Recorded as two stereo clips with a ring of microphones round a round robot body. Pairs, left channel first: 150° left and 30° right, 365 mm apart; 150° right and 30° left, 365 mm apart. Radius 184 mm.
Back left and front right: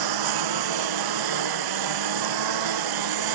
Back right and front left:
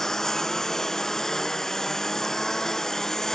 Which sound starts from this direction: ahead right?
A lawn mower, at 0.0 s.